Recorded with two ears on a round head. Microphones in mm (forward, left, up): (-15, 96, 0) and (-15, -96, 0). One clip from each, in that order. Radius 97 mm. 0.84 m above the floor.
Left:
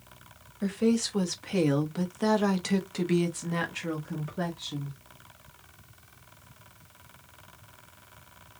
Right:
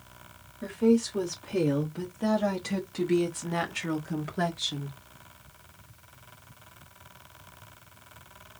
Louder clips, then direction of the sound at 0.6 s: Right 3 dB; 60° left (ahead or behind).